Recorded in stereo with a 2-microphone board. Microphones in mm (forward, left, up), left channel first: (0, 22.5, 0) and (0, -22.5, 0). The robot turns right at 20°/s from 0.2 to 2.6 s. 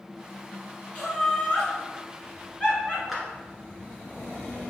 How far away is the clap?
About 1.3 m.